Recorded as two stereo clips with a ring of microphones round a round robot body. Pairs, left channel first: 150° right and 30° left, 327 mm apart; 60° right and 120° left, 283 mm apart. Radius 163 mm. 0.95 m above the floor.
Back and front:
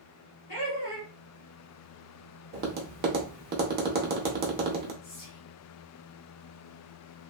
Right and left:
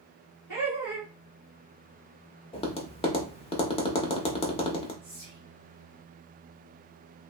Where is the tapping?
5° right, 0.7 m.